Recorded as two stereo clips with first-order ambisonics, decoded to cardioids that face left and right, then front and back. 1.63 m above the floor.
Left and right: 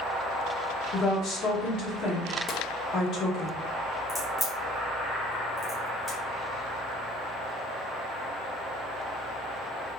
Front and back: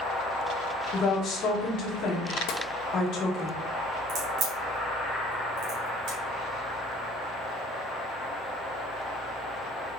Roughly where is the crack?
Behind.